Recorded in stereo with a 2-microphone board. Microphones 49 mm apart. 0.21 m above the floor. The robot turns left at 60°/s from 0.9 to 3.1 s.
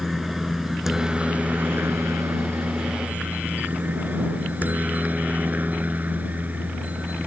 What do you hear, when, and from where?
0.0 s a helicopter: 5° right (ahead or behind); by 7.3 s 35° right (ahead or behind)